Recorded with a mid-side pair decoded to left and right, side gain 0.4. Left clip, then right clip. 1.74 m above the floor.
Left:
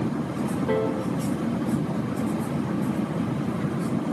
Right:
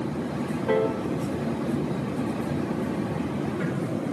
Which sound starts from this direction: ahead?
A piano, at 0.7 s.